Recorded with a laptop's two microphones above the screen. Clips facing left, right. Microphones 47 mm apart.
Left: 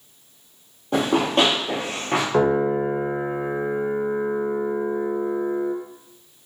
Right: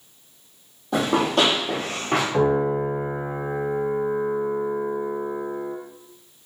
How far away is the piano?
About 0.6 m.